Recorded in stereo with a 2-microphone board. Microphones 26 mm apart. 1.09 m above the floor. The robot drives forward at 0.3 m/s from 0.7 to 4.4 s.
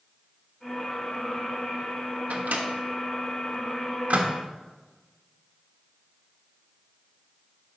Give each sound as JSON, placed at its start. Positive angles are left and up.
{"t": 2.3, "sound": "a microwave", "side_deg": -80, "distance_m": 1.3}